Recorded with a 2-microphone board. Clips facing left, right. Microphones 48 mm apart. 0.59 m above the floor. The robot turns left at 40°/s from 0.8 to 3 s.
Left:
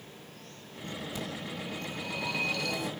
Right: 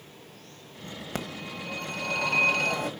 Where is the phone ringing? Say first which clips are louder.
Right 2 dB; 65° right, 1.6 m; by 2.9 s 135° right, 1.6 m.